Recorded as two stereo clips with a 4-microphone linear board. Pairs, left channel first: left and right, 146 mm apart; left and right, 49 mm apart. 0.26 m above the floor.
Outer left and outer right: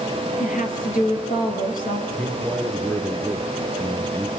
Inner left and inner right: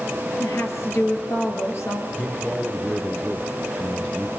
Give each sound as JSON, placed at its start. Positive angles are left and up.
{"t": 0.4, "sound": "a woman speaking", "side_deg": 65, "distance_m": 5.5}
{"t": 2.2, "sound": "a man speaking", "side_deg": 10, "distance_m": 3.5}